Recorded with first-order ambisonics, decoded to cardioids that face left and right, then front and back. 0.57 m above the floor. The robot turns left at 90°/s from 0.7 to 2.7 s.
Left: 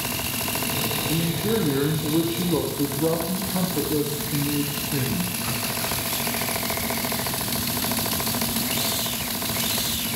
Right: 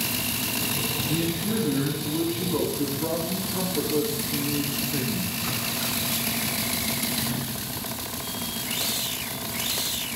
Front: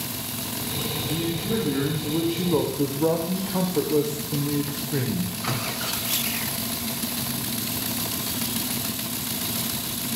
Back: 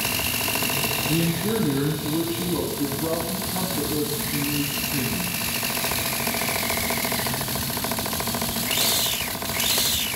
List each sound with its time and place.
1.1 s a man speaking: 160° left, 1.8 m; by 5.4 s 15° left, 1.8 m